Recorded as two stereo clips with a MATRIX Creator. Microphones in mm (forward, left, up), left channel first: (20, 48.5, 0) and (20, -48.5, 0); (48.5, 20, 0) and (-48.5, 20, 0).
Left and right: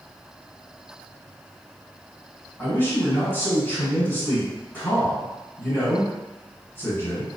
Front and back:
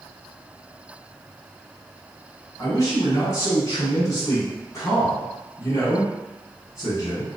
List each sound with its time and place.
2.6 s a man speaking: 35° left, 1.5 m